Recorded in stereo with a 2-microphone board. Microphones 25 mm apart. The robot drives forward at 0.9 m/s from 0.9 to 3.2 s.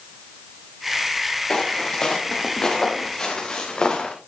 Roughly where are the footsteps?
Left.